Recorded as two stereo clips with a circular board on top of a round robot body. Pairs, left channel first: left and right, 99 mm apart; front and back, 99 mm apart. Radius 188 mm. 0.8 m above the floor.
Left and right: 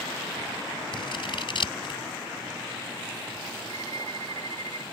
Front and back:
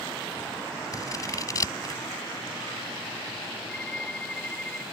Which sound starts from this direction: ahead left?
Scissors, at 0.9 s.